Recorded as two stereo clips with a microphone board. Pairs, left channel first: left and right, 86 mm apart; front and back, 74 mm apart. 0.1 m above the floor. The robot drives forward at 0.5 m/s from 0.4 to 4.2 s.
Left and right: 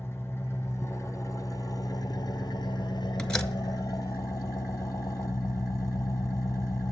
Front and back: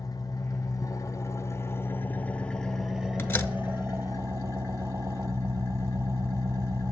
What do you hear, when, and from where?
0.0 s an engine running: 25° left, 1.4 m; by 6.9 s 140° left, 1.0 m
3.2 s a door slam: 20° left, 0.9 m; by 3.5 s 30° left, 0.8 m